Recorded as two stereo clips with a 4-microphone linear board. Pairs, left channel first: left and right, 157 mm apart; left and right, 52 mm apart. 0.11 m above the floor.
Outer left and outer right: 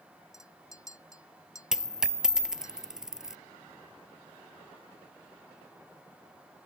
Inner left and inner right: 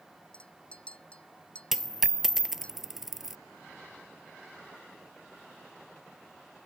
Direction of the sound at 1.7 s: 5° right (ahead or behind).